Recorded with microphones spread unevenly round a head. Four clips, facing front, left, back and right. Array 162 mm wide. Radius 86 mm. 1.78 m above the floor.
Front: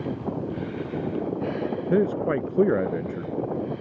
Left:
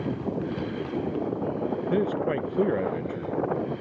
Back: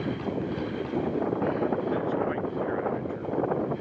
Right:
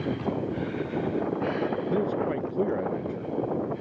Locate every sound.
1.9 s a man speaking: 5° left; by 3.3 s 10° left